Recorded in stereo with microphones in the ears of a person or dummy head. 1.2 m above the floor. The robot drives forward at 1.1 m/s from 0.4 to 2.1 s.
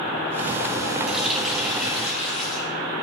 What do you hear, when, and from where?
1.1 s a running tap: centre (ahead or behind), 0.6 m